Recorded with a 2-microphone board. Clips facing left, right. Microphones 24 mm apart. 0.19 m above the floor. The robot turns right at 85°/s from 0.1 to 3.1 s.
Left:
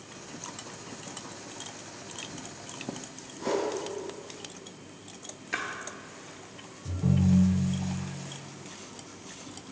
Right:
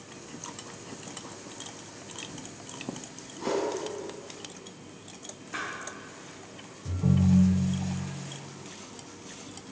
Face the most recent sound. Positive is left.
turn(degrees=-20)  # may be behind; listen again after turning